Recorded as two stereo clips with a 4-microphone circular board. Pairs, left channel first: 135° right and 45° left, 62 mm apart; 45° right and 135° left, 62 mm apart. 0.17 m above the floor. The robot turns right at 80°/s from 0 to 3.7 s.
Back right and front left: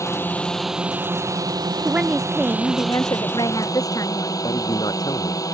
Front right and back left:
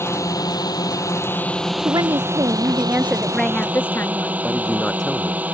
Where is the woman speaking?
105° left; by 4.3 s 105° right.